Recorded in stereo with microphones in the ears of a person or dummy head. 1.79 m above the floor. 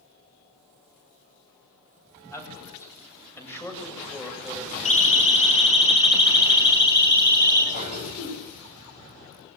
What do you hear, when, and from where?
2.3 s a man speaking: 20° left (ahead or behind), 9 m; by 4.8 s 15° left (ahead or behind), 7 m
4.8 s a siren: 45° left (ahead or behind), 5.5 m; by 7.6 s 25° left (ahead or behind), 7 m
7.7 s a cough: 50° left (ahead or behind), 10 m